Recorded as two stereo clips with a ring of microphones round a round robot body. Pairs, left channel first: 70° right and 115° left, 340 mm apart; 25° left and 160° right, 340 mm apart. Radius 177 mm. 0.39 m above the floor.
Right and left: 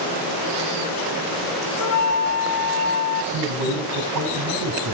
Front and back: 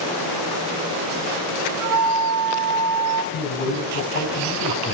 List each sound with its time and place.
1.8 s a flute: 115° right, 1.4 m
3.3 s a man speaking: 70° left, 4 m